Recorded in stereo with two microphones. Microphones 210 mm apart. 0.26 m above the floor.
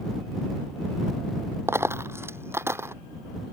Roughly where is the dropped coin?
Centre.